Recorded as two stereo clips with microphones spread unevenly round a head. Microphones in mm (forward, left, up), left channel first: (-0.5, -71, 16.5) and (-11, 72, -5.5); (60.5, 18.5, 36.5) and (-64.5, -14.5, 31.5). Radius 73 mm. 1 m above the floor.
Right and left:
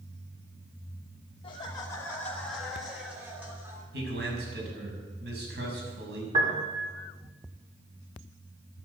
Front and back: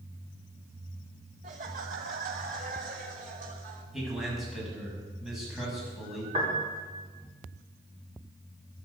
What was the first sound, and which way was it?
Laughter, 145° right.